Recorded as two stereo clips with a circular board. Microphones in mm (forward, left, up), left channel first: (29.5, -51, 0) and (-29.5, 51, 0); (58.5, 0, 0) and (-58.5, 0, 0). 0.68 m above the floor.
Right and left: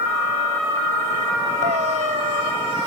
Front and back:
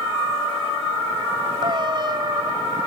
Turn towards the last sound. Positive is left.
turn(degrees=130)